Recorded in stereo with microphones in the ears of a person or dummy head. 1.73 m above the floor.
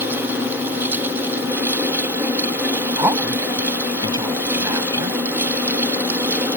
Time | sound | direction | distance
0.0 | a fan | 10° right (ahead or behind) | ?
3.0 | a woman speaking | 25° right (ahead or behind) | ?